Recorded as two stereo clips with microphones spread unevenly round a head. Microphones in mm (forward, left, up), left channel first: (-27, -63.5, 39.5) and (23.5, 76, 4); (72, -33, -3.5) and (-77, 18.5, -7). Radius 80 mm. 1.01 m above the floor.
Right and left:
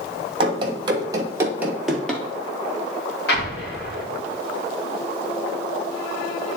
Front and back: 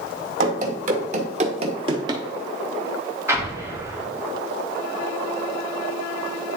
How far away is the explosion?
About 1.7 m.